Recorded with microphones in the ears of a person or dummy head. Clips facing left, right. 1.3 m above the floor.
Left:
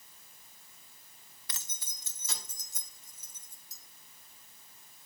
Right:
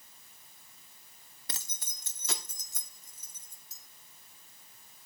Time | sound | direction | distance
1.5 | keys jangling | 35° right (ahead or behind) | 1.0 m